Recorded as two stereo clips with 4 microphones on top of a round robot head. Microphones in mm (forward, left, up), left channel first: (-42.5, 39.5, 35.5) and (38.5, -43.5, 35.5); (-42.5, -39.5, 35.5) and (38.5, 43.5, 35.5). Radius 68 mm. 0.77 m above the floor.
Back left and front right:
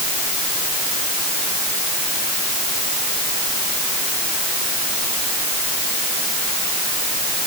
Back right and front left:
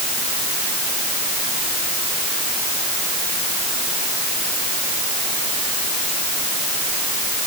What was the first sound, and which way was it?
Only background noise.